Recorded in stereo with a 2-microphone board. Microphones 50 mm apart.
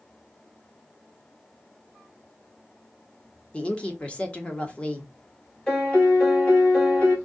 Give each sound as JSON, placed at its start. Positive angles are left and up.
{"t": 3.5, "sound": "a woman speaking", "side_deg": 20, "distance_m": 0.9}
{"t": 5.7, "sound": "a piano", "side_deg": 10, "distance_m": 1.2}